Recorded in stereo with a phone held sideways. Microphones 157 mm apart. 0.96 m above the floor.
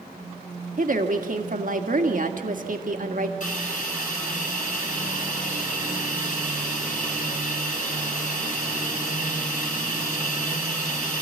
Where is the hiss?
55° left (ahead or behind), 5.5 m.